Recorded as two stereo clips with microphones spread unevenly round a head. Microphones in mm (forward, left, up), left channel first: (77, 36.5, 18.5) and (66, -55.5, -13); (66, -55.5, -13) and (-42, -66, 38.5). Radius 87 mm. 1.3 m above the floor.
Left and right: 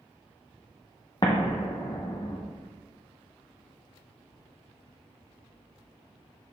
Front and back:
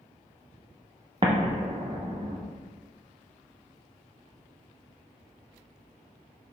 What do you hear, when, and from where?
1.2 s an explosion: 140° left, 0.6 m